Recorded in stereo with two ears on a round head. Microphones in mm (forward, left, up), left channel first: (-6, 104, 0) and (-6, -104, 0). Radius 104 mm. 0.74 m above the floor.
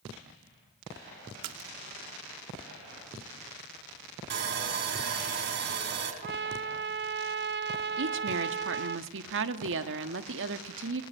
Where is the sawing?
50° right (ahead or behind), 3.5 m.